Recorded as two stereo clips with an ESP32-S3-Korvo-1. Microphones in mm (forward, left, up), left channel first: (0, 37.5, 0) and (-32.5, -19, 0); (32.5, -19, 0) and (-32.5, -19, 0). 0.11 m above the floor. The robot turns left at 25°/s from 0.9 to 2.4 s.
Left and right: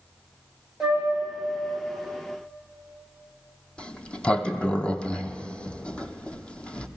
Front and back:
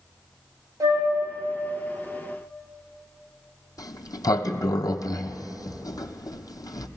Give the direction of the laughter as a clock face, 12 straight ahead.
No laughter in this recording.